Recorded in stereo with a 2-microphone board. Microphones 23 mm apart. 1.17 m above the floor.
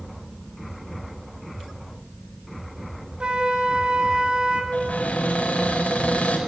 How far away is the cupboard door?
About 5 m.